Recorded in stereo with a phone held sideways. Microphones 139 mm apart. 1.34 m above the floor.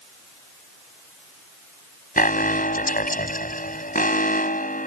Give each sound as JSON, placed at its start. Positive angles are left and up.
{"t": 2.2, "sound": "an alarm", "side_deg": 80}